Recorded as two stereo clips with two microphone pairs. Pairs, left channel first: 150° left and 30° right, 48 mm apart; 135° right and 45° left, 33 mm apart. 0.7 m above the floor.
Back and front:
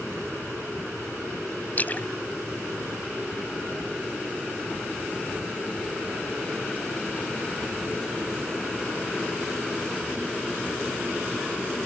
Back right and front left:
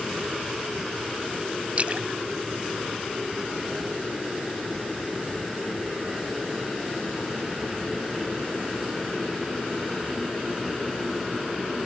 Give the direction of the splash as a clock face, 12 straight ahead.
9 o'clock.